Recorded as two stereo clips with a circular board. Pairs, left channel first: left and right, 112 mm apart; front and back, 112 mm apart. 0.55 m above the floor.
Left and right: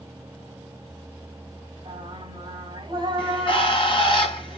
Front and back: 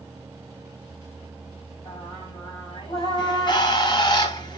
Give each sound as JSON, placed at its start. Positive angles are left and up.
{"t": 1.9, "sound": "singing", "azimuth_deg": -45, "distance_m": 3.5}
{"t": 3.2, "sound": "a bird", "azimuth_deg": 50, "distance_m": 2.0}